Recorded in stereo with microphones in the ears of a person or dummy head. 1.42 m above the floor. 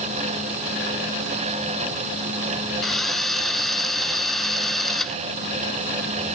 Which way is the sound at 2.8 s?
5° left (ahead or behind).